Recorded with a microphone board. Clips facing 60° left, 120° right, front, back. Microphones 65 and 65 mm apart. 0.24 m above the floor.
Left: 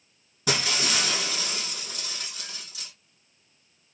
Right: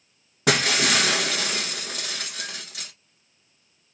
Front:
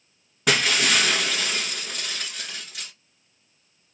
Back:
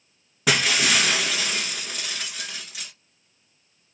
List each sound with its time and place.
0.5 s breaking glass: 90° right, 0.5 m